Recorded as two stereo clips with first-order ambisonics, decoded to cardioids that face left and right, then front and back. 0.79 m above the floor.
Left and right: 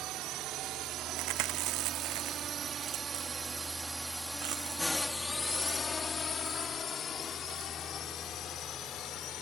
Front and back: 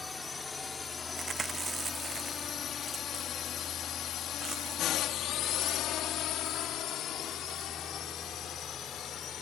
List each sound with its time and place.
0.0 s a drone: 70° right; by 9.4 s 50° left
1.2 s chewing: 105° right